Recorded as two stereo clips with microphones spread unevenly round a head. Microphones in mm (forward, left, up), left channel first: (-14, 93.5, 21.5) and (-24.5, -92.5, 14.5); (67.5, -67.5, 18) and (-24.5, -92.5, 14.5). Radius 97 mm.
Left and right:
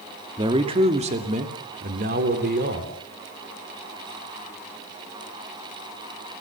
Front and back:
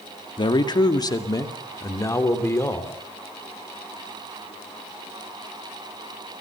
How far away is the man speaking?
About 1.9 m.